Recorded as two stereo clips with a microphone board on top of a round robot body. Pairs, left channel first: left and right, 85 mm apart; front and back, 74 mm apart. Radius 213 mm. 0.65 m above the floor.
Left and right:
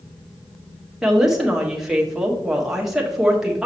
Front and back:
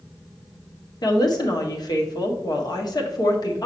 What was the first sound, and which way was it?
A woman speaking, 5° right.